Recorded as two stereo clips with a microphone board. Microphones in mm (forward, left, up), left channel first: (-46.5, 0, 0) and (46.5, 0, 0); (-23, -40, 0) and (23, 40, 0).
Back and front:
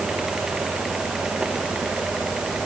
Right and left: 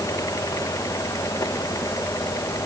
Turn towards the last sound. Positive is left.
No sound to turn to.